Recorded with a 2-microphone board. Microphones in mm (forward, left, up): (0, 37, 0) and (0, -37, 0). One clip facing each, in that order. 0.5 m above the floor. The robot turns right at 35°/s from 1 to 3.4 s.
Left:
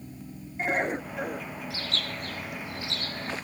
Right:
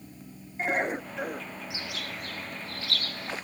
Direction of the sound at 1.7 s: 20° right.